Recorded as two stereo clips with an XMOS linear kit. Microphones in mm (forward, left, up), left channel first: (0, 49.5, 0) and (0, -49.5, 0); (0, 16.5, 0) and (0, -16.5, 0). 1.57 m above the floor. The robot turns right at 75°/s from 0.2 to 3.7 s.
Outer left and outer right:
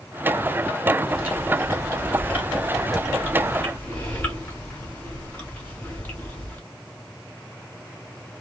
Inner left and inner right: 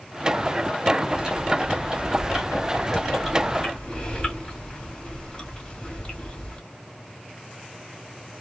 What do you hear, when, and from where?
1.1 s chewing: 10° right (ahead or behind), 1.3 m; by 6.6 s 15° left (ahead or behind), 1.3 m